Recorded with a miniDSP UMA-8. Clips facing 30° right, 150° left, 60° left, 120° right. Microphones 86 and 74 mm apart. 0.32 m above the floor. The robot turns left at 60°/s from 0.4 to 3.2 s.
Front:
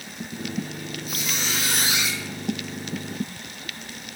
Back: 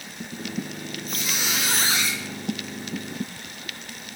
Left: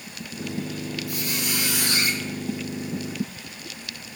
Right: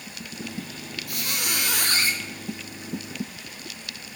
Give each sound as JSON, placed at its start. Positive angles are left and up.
{"t": 1.1, "sound": "a squeak", "azimuth_deg": -110, "distance_m": 0.6}